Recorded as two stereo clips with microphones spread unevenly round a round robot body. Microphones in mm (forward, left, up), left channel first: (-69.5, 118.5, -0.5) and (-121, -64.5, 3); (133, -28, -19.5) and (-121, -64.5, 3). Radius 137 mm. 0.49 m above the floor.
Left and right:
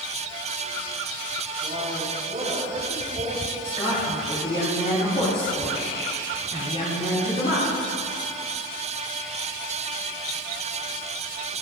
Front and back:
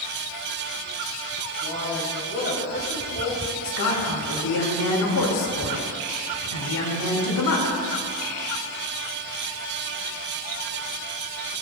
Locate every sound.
1.6 s a man speaking: 40° right, 5.5 m
3.6 s a woman speaking: 5° left, 5 m